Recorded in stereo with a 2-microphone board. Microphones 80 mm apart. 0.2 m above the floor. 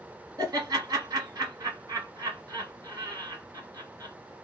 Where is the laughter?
45° right (ahead or behind), 1.6 m.